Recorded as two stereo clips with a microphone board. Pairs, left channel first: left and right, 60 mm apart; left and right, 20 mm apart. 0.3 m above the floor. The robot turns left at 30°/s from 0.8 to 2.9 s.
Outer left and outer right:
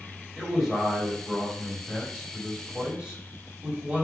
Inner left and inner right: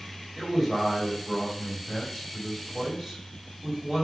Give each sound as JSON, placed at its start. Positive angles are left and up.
{"t": 0.4, "sound": "a man speaking", "side_deg": -5, "distance_m": 1.4}